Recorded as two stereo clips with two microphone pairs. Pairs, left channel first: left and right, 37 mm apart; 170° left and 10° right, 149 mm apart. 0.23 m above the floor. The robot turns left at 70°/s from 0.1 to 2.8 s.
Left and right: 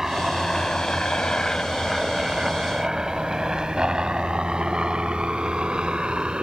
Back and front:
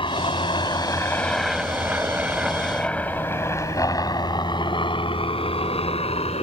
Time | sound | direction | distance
0.0 | a helicopter | 160° right | ?